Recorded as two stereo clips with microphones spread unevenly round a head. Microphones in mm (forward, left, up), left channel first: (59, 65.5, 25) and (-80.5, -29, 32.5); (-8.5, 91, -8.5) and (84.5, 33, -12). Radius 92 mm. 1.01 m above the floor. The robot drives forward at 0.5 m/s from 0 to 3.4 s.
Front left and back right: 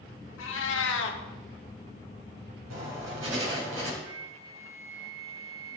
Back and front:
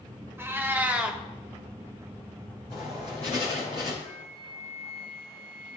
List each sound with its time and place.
0.4 s a cat meowing: 35° left, 1.3 m; by 1.2 s 50° left, 1.0 m
2.7 s writing: 145° right, 3.5 m
4.0 s a flute: 150° right, 1.9 m